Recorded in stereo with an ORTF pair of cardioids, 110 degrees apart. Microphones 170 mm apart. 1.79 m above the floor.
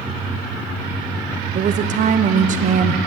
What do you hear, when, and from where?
1.6 s a woman speaking: 50° right, 1.3 m